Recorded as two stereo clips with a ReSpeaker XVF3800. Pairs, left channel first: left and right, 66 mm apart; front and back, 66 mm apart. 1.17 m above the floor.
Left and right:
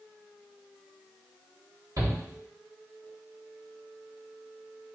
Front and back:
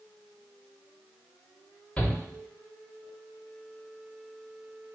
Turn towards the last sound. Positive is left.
turn(degrees=-75)